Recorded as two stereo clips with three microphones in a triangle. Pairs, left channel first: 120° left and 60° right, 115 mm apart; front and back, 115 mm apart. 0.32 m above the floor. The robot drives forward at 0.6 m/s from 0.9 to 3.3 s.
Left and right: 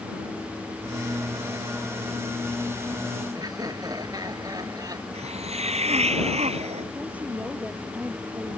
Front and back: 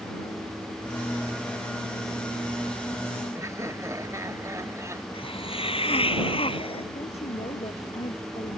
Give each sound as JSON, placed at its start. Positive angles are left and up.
{"t": 3.4, "sound": "laughter", "azimuth_deg": -115}
{"t": 5.1, "sound": "a hiss", "azimuth_deg": -40}
{"t": 6.9, "sound": "a woman speaking", "azimuth_deg": 20}